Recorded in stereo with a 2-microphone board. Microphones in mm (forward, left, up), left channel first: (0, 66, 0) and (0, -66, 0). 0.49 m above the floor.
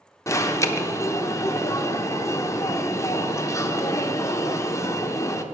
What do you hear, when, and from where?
0.3 s an alarm: 25° left (ahead or behind), 0.7 m